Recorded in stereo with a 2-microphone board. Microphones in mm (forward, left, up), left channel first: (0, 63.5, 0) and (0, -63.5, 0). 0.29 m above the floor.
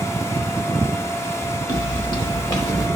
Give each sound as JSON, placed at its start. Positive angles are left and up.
{"t": 1.7, "sound": "footsteps", "side_deg": 35, "distance_m": 2.5}